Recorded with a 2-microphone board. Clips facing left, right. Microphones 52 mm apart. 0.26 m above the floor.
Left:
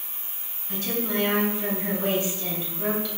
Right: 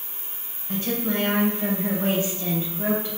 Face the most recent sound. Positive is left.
turn(degrees=-20)  # may be behind; listen again after turning